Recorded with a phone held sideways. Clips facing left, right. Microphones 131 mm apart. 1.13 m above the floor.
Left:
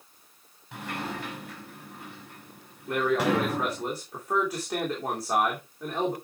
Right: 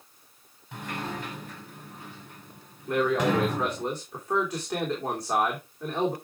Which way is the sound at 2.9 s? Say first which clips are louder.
Right 1 dB; 5° left (ahead or behind).